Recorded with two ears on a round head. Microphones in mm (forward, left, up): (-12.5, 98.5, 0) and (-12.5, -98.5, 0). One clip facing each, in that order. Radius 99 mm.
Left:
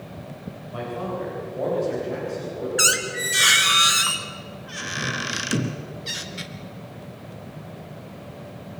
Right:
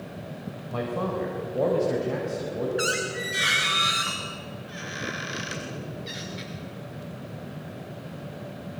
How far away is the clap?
No clap in this recording.